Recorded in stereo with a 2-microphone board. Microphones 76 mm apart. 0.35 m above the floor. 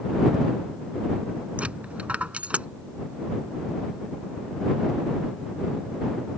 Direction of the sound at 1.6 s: 20° right (ahead or behind).